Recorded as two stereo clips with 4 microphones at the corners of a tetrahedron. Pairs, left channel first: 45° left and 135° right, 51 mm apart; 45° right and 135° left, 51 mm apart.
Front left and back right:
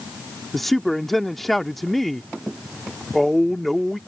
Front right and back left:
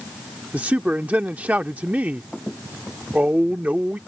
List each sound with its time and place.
0.5 s a woman speaking: 130° left